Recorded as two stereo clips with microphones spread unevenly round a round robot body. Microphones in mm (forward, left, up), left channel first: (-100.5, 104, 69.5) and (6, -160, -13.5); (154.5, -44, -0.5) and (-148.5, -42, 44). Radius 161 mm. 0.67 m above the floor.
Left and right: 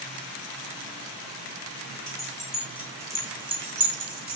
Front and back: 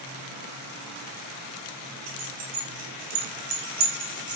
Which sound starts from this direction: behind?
Keys jangling, at 2.1 s.